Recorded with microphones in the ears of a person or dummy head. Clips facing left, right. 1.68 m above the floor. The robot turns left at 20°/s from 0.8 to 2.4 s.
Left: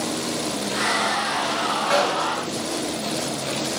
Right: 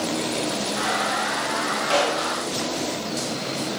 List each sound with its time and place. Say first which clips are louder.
1.9 s a gunshot: left 1 dB; 30° left (ahead or behind), 3 m; by 2.4 s 35° left (ahead or behind), 3 m